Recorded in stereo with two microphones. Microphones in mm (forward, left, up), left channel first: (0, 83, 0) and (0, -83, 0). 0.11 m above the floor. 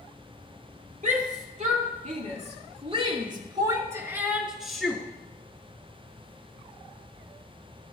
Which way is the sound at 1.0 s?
50° right (ahead or behind).